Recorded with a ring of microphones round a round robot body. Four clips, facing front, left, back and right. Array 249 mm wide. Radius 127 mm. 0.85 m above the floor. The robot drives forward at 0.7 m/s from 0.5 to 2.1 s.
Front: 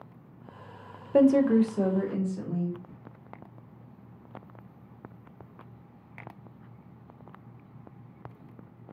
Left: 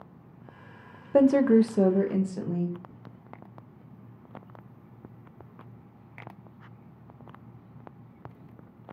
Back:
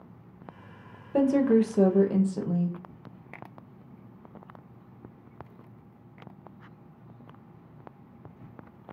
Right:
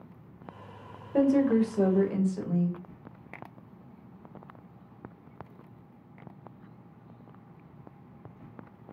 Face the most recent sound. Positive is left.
turn(degrees=150)